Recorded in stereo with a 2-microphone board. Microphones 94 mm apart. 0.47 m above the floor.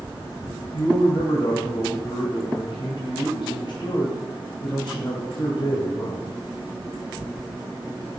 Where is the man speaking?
60° left (ahead or behind), 2.5 m.